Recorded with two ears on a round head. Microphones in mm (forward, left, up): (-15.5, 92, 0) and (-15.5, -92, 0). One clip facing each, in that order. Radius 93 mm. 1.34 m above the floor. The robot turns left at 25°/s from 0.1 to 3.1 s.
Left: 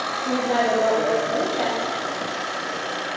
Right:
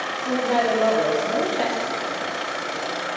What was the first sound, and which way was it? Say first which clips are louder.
A woman speaking: even; 10° left.